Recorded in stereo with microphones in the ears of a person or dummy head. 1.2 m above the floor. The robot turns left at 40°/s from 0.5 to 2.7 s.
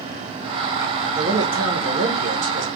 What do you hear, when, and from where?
1.1 s a man speaking: 45° right, 1.2 m; by 2.7 s 105° right, 1.2 m